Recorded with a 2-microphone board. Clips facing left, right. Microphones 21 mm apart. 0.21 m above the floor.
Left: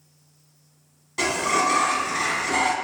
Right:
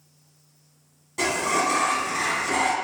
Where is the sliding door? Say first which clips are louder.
Left 1 dB; 25° left (ahead or behind), 0.6 m.